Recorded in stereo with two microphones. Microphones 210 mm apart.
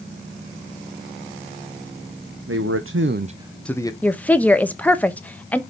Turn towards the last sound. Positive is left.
turn(degrees=5)  # may be behind; listen again after turning